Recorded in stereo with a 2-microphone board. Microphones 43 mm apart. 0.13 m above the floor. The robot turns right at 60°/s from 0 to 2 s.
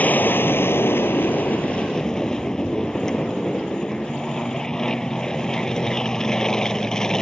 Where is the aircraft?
45° left; by 7.2 s 165° left.